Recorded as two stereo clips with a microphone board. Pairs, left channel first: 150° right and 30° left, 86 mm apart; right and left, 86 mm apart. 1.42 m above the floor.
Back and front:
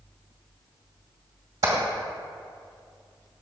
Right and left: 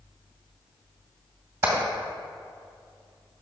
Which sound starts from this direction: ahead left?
Hammering, at 1.6 s.